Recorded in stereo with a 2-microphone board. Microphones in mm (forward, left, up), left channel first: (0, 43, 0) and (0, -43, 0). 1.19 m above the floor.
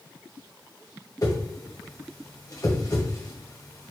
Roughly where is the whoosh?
Left.